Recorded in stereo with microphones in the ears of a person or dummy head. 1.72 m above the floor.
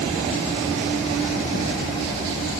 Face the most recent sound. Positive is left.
No sound to turn to.